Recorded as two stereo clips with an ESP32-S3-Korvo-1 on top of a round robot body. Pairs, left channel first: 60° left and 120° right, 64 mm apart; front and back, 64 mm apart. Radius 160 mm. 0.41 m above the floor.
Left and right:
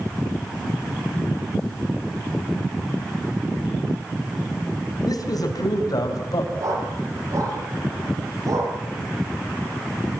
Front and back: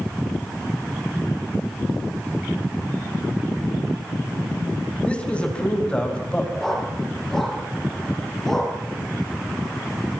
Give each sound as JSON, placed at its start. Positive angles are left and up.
{"t": 5.0, "sound": "a man speaking", "azimuth_deg": 70, "distance_m": 5.0}
{"t": 6.6, "sound": "a dog barking", "azimuth_deg": -85, "distance_m": 9.5}